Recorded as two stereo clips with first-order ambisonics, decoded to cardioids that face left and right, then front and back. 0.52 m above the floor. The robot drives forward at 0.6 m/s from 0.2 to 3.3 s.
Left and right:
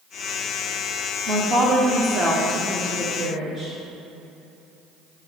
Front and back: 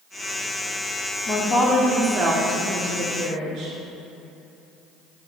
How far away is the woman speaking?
About 0.7 m.